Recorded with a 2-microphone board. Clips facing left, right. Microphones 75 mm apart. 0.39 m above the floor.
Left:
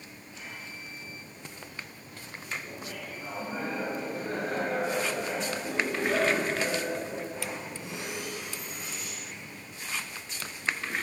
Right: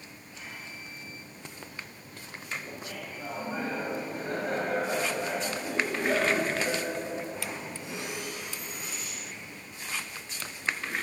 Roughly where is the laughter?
Right.